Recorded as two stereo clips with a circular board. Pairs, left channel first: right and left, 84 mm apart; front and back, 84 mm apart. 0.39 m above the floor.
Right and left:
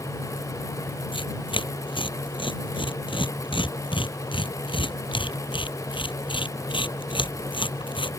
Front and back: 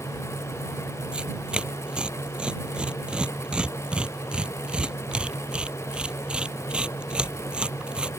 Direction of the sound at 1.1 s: 100° right.